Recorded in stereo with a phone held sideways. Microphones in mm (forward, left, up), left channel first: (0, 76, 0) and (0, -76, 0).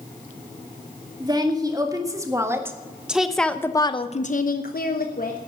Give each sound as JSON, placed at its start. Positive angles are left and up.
{"t": 1.2, "sound": "a woman speaking", "side_deg": -30, "distance_m": 3.0}